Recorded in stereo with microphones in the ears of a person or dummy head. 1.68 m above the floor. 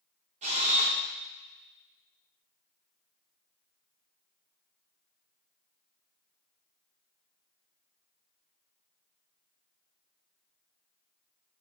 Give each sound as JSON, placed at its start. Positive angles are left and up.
{"t": 0.4, "sound": "a camera shutter", "side_deg": -40, "distance_m": 1.9}